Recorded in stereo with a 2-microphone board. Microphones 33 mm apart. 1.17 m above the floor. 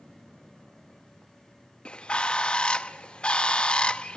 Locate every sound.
1.9 s a bird: 30° left (ahead or behind), 0.6 m